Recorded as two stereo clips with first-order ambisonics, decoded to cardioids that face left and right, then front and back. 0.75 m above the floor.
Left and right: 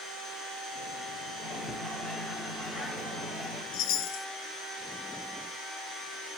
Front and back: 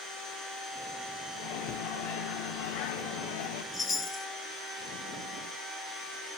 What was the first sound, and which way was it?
A microwave, 5° left.